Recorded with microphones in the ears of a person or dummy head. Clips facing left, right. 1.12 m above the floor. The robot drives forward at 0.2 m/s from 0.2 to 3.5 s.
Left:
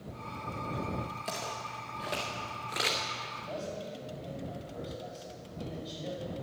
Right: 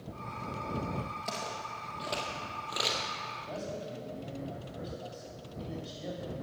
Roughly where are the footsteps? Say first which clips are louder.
Even; centre.